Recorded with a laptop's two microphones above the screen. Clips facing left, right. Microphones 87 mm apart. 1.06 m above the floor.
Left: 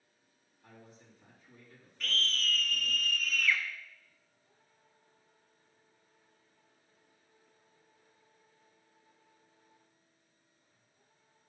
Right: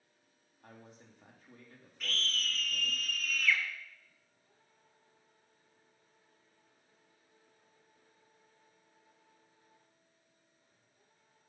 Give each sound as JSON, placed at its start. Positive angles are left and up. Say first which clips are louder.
{"t": 0.6, "sound": "a man speaking", "louder": "right 1 dB", "side_deg": -55, "distance_m": 2.0}
{"t": 2.0, "sound": "a scream", "louder": "left 3 dB", "side_deg": -5, "distance_m": 0.9}